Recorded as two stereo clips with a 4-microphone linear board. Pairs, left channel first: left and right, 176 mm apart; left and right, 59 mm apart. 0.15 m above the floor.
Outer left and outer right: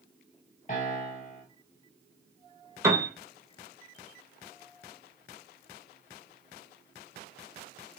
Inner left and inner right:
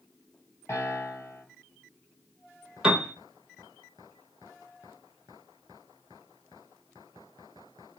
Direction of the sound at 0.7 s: 50° left (ahead or behind).